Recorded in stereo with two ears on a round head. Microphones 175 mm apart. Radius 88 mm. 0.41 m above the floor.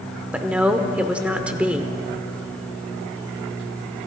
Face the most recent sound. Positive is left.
turn(degrees=-5)  # may be behind; listen again after turning